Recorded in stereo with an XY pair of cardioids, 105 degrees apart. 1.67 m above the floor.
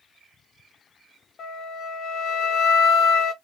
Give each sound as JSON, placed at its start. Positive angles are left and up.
{"t": 1.4, "sound": "a flute", "azimuth_deg": 65, "distance_m": 0.6}